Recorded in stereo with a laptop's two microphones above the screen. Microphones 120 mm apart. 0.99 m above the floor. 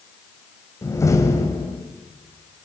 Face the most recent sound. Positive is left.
turn(degrees=25)  # may be behind; listen again after turning